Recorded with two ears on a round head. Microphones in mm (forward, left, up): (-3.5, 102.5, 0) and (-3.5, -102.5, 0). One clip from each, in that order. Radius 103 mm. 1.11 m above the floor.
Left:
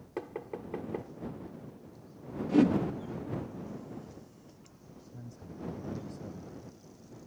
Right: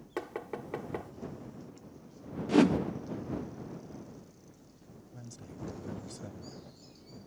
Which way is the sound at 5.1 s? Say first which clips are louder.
Even; 75° right (ahead or behind).